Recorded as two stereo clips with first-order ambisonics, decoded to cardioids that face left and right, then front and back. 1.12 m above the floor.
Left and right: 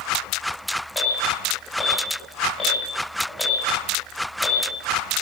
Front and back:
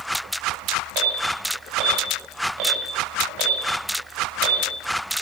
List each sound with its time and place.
0.9 s an alarm: 175° left, 7.5 m